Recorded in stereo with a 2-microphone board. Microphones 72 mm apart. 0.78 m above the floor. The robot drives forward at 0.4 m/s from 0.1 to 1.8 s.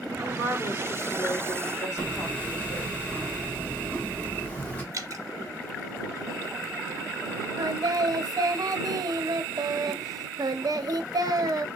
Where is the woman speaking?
60° left (ahead or behind), 1.4 m; by 2.9 s 45° left (ahead or behind), 1.7 m.